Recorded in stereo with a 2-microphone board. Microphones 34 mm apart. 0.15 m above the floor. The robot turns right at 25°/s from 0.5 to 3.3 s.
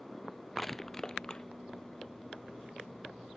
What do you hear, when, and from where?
0.6 s crushing: 5° left (ahead or behind); by 1.4 s 25° left (ahead or behind)